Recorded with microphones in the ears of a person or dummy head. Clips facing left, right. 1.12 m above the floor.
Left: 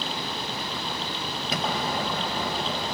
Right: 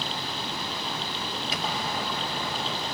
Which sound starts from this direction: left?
An explosion, at 1.5 s.